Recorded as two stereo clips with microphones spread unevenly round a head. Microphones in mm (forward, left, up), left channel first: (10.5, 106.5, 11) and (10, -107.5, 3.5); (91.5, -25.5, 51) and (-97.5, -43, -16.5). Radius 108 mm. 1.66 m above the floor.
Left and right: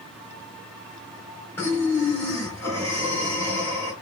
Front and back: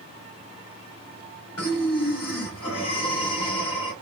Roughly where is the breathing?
Ahead.